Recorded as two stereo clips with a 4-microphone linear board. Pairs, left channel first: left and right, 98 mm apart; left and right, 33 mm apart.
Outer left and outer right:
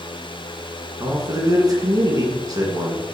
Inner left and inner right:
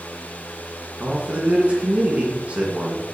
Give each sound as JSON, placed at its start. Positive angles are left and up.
{"t": 1.0, "sound": "a man speaking", "side_deg": -40, "distance_m": 2.0}